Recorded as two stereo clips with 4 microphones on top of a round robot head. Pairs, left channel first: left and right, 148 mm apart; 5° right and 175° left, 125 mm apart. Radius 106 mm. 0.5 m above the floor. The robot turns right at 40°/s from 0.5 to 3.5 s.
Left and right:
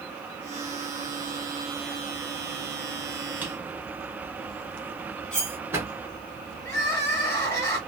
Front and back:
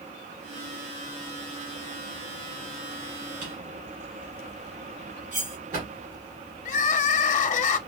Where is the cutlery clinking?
175° left, 3 m.